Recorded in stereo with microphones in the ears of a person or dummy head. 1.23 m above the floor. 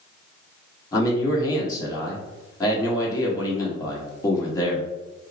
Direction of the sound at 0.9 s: 20° left (ahead or behind).